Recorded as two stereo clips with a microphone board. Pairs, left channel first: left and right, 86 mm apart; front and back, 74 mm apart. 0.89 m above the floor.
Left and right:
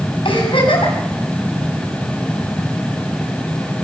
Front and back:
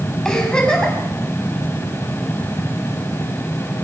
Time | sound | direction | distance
0.2 | a giggle | 80° left | 6 m